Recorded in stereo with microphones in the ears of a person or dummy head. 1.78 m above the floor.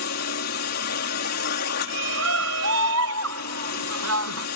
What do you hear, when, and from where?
0.0 s a drone: 55° left (ahead or behind)
1.8 s a shout: 80° right